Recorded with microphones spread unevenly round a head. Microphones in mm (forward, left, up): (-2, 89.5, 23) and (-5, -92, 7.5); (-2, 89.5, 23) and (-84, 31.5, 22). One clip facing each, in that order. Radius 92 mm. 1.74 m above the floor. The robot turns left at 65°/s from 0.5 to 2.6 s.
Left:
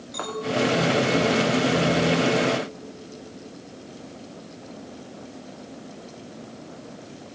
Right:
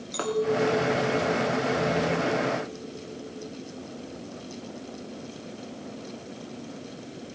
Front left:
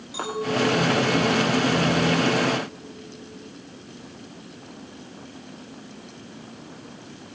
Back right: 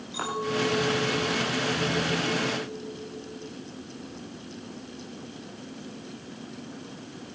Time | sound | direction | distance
0.1 | a clink | 40° right | 2.5 m